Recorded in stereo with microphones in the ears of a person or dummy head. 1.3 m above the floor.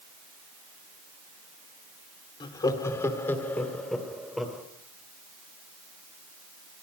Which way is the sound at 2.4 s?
30° left (ahead or behind).